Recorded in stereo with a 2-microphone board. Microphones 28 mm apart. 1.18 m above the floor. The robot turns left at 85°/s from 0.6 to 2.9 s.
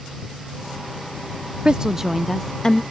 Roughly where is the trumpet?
No trumpet in this recording.